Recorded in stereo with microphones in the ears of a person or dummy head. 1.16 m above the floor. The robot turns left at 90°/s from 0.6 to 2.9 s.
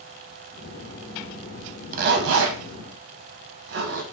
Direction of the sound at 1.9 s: 40° right (ahead or behind).